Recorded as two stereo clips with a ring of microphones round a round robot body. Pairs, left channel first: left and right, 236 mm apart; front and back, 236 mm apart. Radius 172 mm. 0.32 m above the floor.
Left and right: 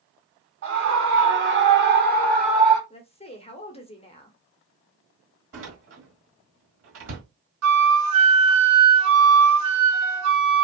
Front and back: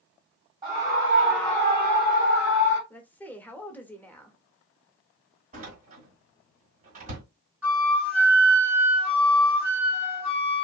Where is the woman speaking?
75° left, 0.9 m.